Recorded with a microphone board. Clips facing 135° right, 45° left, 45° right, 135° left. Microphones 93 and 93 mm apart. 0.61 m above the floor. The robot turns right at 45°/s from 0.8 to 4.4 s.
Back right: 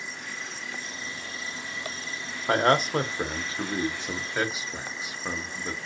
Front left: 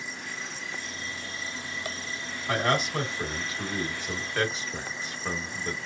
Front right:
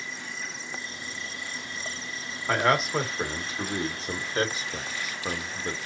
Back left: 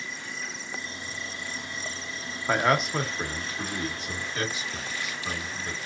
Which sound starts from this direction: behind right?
A man speaking, at 2.5 s.